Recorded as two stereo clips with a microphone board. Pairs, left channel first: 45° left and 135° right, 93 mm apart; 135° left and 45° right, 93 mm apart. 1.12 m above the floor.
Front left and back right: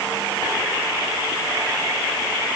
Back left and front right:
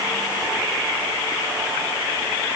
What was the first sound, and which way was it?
Only background noise.